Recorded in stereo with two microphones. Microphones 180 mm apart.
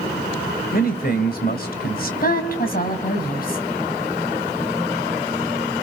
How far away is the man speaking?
About 3 m.